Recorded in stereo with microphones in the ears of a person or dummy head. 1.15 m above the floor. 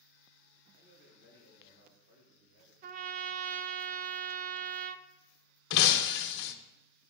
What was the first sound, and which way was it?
A man speaking, 65° right (ahead or behind).